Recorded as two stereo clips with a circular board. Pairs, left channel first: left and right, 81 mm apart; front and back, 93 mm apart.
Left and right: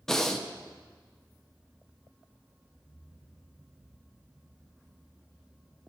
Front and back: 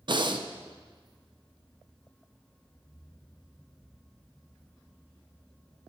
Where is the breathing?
170° left, 0.8 m.